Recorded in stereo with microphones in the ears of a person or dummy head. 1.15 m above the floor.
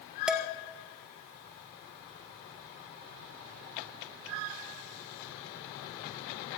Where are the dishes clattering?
5° right (ahead or behind), 1.6 m.